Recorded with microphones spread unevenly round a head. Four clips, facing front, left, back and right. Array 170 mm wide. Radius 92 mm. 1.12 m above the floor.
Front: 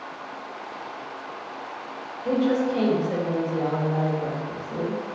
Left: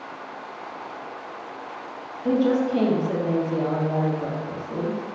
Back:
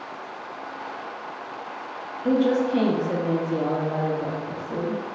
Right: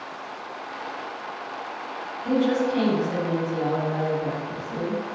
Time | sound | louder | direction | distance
2.2 | a woman speaking | left 1 dB, back 2 dB | 150° left | 2 m